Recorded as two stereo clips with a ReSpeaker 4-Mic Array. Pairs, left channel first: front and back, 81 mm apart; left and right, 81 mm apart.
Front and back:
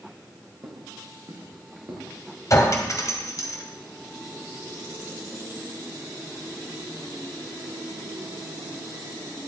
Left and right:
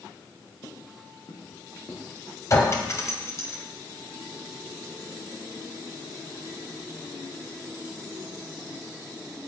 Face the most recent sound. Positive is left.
turn(degrees=40)